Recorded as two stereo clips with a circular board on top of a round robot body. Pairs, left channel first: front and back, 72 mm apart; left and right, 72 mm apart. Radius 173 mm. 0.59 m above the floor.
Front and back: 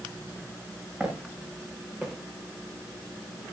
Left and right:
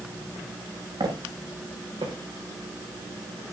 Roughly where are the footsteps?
Right.